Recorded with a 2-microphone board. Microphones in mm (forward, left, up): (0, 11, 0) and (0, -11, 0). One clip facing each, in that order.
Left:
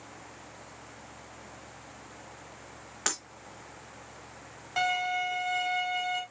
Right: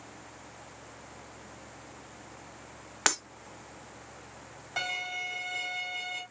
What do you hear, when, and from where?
3.1 s breaking glass: 30° right (ahead or behind), 1.1 m
4.8 s a violin: 5° left (ahead or behind), 2 m